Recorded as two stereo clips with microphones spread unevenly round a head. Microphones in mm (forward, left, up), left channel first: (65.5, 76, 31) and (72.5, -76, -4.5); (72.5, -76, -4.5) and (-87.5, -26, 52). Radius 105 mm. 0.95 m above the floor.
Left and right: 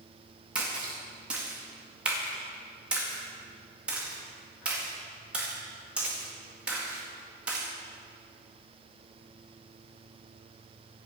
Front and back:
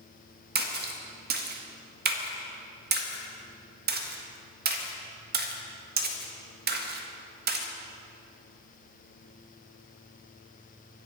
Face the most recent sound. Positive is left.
turn(degrees=-165)